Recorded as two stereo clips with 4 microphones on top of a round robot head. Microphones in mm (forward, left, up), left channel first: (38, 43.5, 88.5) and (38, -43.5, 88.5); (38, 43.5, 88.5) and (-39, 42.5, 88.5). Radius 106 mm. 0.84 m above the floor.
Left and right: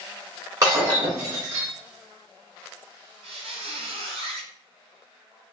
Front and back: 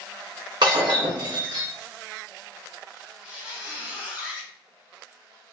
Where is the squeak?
110° right, 0.7 m.